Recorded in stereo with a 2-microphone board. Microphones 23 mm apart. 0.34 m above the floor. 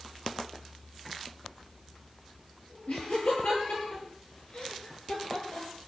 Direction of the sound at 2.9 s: 75° left (ahead or behind).